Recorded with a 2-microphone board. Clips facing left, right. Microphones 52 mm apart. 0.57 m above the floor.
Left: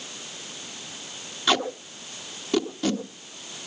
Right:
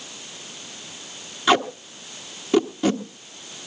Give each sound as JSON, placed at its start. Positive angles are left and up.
{"t": 1.5, "sound": "tape being pulled", "side_deg": -10, "distance_m": 1.3}